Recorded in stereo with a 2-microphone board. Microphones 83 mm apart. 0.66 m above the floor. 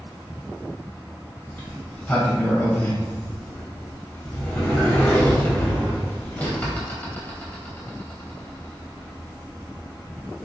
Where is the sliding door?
20° left (ahead or behind), 2.5 m.